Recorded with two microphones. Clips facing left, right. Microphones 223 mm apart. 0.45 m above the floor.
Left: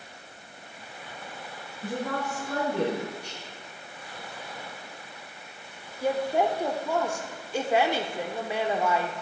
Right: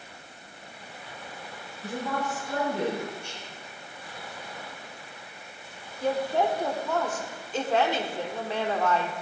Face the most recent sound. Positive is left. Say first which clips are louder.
# left 1 dB
turn(degrees=10)  # may be behind; listen again after turning